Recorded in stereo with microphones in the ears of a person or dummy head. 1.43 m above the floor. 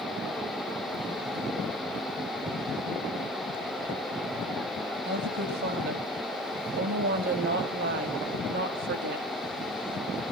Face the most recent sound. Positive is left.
turn(degrees=-65)  # may be behind; listen again after turning